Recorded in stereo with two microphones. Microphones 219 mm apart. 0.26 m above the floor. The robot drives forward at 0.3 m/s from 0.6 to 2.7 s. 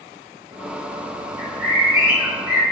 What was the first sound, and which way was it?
A bird, 15° right (ahead or behind).